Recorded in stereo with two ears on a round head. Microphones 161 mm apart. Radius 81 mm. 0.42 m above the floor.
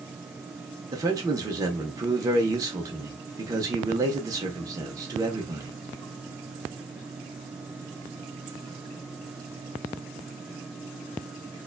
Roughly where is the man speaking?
Centre.